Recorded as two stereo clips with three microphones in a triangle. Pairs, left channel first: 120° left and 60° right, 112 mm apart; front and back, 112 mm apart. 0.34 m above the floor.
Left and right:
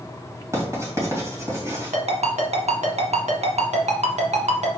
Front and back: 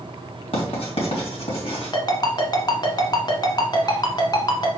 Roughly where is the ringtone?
Ahead right.